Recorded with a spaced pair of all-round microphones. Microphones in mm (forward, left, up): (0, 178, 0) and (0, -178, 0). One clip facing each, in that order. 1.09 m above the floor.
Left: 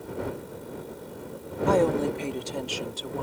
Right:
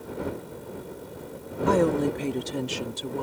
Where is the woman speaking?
20° right (ahead or behind); by 3.2 s 35° right (ahead or behind).